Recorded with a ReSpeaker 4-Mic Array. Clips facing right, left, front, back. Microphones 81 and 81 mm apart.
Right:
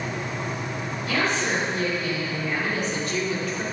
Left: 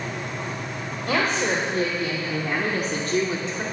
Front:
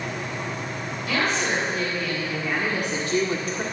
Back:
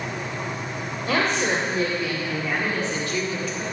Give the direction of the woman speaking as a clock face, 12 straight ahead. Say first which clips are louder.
Left 2 dB, back 2 dB; 8 o'clock.